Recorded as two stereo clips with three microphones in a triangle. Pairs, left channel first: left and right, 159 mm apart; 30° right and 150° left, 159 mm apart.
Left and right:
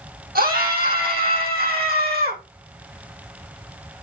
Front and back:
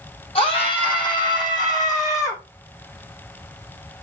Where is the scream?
85° right, 5 m; by 2.4 s 100° right, 7 m.